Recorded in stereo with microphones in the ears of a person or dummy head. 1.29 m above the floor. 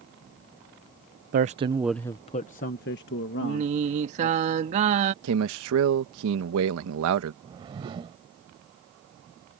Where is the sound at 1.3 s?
45° right (ahead or behind); by 4.4 s 70° left (ahead or behind).